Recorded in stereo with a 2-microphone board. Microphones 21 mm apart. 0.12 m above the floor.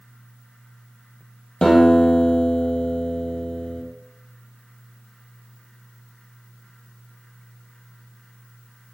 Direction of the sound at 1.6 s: 30° left (ahead or behind).